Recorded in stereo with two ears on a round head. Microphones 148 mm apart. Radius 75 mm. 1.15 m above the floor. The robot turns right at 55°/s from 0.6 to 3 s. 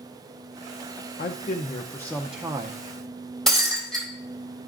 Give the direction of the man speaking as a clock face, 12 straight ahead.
8 o'clock.